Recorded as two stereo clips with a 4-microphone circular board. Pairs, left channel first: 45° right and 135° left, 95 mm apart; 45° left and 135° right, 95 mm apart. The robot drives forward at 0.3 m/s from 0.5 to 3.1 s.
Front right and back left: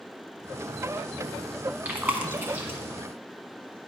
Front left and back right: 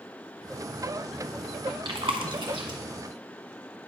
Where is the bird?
No bird in this recording.